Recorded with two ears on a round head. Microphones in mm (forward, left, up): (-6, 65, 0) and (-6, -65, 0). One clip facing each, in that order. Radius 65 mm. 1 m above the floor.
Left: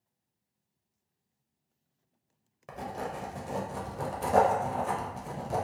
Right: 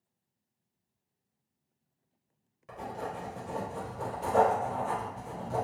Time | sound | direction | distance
2.7 | writing | 65° left (ahead or behind) | 0.7 m